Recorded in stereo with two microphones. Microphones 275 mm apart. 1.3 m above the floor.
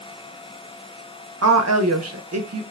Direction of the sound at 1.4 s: 65° right (ahead or behind).